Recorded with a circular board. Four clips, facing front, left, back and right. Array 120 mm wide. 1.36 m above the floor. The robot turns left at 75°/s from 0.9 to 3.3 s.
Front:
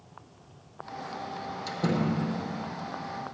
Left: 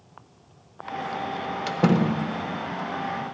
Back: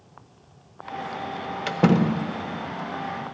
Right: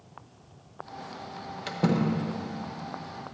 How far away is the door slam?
About 0.6 m.